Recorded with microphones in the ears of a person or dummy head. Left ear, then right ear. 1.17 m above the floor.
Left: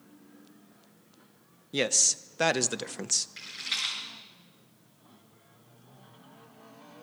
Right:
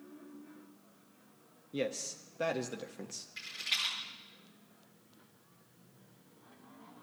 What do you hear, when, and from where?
1.7 s a man speaking: 45° left (ahead or behind), 0.8 m
3.4 s a rattle: centre (ahead or behind), 6 m